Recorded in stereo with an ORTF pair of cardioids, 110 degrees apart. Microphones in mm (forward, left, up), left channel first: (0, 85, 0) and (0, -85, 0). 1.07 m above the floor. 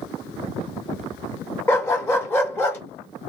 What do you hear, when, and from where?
1.7 s a dog barking: 15° left, 1.3 m